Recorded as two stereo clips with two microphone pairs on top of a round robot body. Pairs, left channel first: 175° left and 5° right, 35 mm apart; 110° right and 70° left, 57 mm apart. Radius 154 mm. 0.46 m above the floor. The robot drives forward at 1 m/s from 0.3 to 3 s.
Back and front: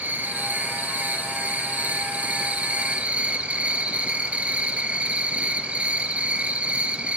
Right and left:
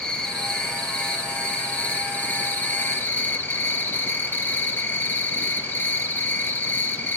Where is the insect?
35° right, 5.5 m; by 7.2 s 55° right, 3.5 m.